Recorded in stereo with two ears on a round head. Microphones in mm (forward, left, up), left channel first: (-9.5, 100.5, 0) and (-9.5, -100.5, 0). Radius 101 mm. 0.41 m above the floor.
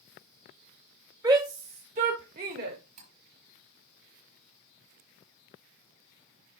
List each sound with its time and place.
1.2 s a shout: 15° right (ahead or behind), 1.5 m; by 2.8 s 45° right (ahead or behind), 1.9 m
3.0 s cutlery clinking: 75° right (ahead or behind), 6.5 m